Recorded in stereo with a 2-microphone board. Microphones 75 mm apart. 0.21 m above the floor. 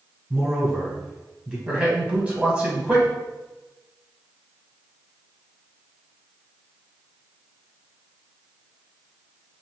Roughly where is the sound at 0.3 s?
Centre.